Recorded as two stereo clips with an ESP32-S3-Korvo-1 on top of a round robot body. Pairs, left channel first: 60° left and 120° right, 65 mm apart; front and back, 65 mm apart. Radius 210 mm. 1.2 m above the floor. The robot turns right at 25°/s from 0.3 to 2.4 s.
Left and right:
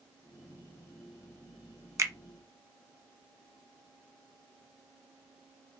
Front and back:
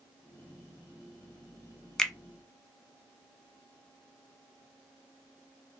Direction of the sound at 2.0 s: 80° right.